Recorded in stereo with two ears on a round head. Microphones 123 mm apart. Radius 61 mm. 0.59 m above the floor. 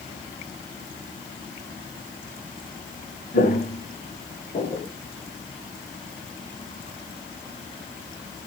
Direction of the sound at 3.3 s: 60° left (ahead or behind).